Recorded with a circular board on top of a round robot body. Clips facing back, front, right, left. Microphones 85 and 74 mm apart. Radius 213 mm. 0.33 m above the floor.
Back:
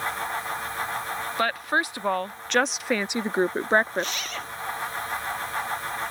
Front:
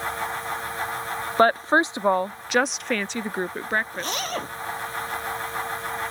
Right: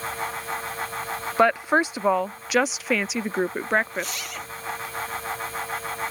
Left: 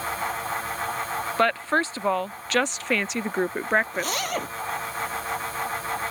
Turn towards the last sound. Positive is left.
turn(degrees=50)